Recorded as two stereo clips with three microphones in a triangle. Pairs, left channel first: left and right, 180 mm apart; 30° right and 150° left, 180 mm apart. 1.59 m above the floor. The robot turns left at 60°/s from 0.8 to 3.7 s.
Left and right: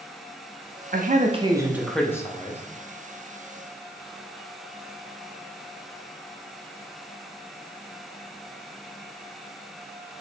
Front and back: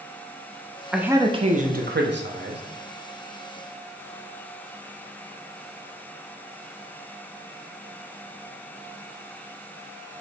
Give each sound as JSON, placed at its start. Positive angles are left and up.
{"t": 0.9, "sound": "a man speaking", "azimuth_deg": -120, "distance_m": 0.5}